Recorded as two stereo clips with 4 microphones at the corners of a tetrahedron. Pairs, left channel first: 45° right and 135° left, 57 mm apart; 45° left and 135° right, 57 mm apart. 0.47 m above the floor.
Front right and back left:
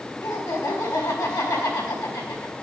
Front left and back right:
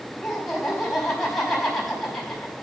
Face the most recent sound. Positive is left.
turn(degrees=-40)